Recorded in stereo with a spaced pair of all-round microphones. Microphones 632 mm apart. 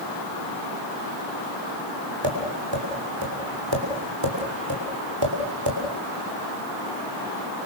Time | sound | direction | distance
2.2 | tapping | 45° right (ahead or behind) | 7 m